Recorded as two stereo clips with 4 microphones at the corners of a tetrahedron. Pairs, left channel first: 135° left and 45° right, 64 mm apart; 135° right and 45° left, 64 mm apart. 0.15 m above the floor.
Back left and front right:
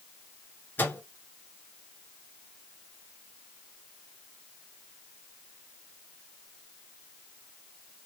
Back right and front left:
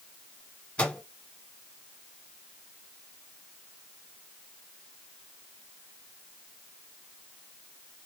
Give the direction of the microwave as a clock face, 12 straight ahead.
6 o'clock.